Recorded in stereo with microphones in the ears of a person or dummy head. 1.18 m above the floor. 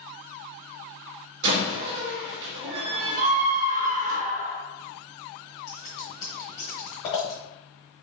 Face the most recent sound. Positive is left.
turn(degrees=25)  # may be behind; listen again after turning